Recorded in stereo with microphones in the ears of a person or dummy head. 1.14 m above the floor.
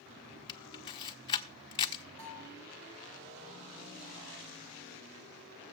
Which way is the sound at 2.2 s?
70° right (ahead or behind).